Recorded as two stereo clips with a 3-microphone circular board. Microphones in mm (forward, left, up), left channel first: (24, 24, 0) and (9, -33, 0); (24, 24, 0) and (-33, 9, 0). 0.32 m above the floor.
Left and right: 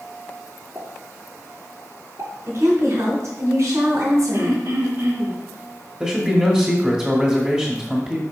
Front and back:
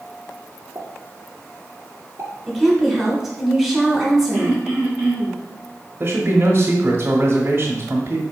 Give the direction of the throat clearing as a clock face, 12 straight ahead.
3 o'clock.